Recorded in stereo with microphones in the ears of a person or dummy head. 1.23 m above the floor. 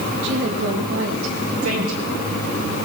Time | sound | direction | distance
0.2 | a woman speaking | 65° right (ahead or behind) | 2 m
1.6 | a woman speaking | 90° right | 4.5 m